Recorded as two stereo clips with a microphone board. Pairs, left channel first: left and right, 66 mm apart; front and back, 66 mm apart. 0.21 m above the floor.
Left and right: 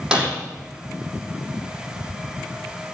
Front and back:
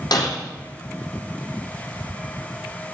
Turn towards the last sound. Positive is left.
turn(degrees=-15)